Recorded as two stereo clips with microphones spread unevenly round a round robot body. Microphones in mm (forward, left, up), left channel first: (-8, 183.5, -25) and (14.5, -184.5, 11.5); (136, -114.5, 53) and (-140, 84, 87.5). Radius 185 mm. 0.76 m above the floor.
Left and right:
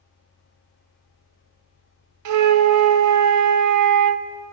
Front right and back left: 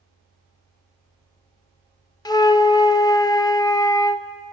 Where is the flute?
100° right, 0.9 m.